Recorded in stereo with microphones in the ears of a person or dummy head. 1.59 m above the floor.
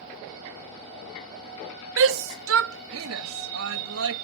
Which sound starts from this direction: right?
A shout, at 2.0 s.